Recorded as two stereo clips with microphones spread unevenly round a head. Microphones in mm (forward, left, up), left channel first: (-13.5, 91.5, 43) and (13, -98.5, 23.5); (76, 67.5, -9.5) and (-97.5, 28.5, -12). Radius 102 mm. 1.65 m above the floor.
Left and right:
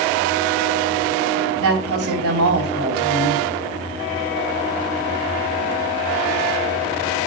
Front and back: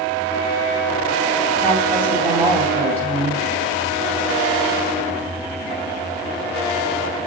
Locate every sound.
1.6 s a woman speaking: 70° right, 2.5 m